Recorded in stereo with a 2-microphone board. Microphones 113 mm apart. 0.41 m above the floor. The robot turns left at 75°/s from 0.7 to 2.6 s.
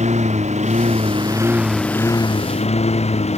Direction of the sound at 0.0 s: 85° right.